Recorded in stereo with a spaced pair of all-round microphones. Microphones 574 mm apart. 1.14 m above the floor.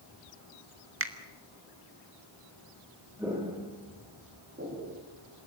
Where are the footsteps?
5° right (ahead or behind), 6.5 m; by 4.9 s 25° right (ahead or behind), 6 m.